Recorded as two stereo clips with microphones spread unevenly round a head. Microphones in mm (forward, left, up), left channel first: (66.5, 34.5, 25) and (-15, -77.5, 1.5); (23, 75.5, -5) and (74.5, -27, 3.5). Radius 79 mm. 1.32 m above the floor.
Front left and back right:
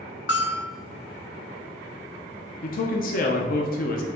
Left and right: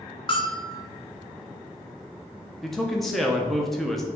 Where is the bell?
70° left, 1.2 m.